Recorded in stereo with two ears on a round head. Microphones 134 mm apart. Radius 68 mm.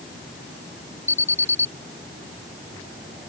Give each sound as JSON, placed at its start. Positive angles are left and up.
{"t": 1.1, "sound": "an alarm", "side_deg": 15}